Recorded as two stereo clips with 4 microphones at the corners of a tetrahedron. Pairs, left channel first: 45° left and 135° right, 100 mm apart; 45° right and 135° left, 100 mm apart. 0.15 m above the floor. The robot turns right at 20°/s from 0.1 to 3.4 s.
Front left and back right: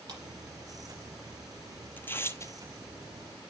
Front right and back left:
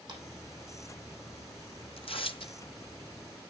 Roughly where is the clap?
Behind.